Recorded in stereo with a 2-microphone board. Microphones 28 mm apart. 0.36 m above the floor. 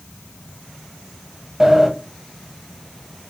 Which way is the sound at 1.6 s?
15° right (ahead or behind).